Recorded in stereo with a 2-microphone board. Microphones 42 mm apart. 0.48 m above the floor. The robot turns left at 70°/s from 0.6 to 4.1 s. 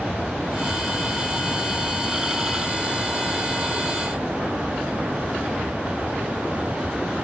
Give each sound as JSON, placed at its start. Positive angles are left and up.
{"t": 0.0, "sound": "an aircraft", "side_deg": 20}